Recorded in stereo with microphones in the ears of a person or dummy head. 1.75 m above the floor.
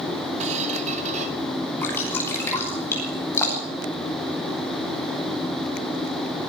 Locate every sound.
0.4 s a squeak: 40° right (ahead or behind), 2.5 m
1.8 s dripping: 10° left (ahead or behind), 10 m